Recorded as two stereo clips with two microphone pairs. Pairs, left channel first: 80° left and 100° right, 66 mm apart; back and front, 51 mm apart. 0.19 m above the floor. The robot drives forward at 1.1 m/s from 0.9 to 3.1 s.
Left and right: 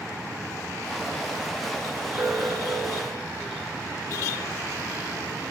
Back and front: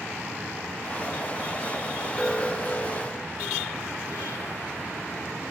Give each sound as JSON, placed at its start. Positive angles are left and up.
{"t": 2.2, "sound": "an alarm", "azimuth_deg": -95, "distance_m": 3.0}